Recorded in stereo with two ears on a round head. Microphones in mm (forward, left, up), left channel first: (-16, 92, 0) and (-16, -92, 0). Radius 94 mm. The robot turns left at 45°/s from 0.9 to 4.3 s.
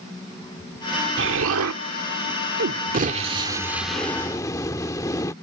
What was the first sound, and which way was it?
An explosion, 55° right.